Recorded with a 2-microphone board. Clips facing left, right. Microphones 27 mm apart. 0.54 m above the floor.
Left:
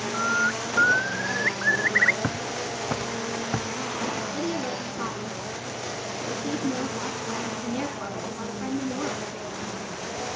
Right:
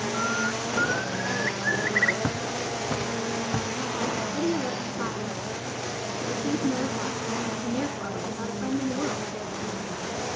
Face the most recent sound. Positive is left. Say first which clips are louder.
# right 2 dB
turn(degrees=35)  # may be behind; listen again after turning